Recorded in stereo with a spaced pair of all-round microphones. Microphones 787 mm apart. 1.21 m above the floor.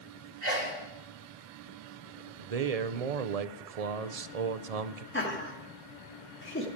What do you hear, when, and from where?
0.4 s a sneeze: 60° right (ahead or behind), 1.6 m
2.4 s a man speaking: 55° right (ahead or behind), 0.6 m
5.1 s laughter: 15° left (ahead or behind), 2 m